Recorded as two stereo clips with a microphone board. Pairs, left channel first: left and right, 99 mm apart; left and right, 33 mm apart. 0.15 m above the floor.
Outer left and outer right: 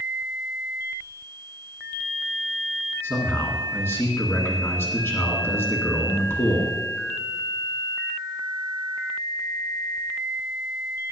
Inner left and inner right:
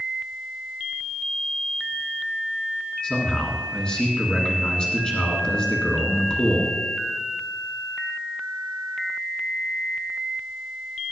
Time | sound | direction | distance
3.0 | a man speaking | 25° left (ahead or behind) | 1.7 m